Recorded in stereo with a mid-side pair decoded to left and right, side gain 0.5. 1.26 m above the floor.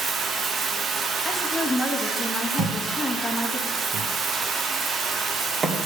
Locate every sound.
0.0 s running water: 40° right, 0.8 m
1.2 s a woman speaking: 25° left, 2 m
2.6 s a thud: 40° right, 1.6 m